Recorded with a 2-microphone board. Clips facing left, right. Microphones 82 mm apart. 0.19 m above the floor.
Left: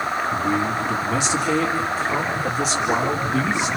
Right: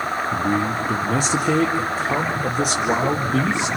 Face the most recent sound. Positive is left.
turn(degrees=-65)  # may be behind; listen again after turning